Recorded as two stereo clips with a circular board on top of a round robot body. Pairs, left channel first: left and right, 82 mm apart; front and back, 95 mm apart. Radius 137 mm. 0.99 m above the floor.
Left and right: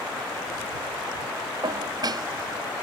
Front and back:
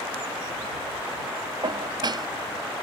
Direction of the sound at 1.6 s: 135° right.